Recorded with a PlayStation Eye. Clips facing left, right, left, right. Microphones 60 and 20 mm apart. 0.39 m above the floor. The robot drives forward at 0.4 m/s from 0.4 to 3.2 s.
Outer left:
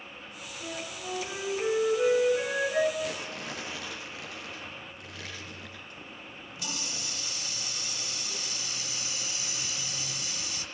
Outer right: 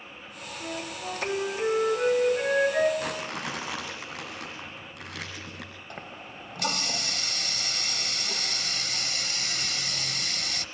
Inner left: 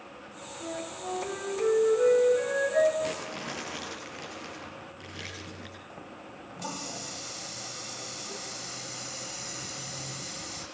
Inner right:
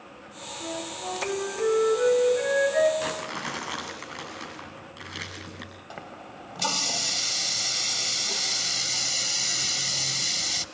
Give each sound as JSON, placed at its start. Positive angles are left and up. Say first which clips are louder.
{"t": 0.6, "sound": "a flute", "louder": "outer right 3 dB, inner right 3 dB", "side_deg": -20, "distance_m": 6.5}
{"t": 3.0, "sound": "crumpling", "louder": "outer right 2 dB, inner right 2 dB", "side_deg": -65, "distance_m": 8.0}
{"t": 5.9, "sound": "a running tap", "louder": "outer right 4 dB, inner right 4 dB", "side_deg": -65, "distance_m": 1.2}